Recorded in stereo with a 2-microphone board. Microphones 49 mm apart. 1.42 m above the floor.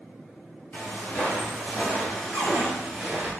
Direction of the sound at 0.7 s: 40° left (ahead or behind).